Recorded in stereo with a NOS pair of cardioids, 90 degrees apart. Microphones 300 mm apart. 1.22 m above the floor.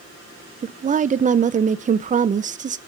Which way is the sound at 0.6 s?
25° right.